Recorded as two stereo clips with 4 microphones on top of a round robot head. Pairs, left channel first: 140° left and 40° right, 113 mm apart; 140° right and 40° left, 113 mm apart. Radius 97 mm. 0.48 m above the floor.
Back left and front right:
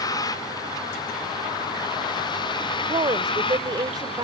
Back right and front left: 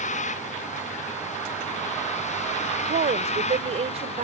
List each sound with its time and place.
0.0 s a vehicle: 160° right; by 4.3 s 175° right
2.9 s a woman speaking: 15° left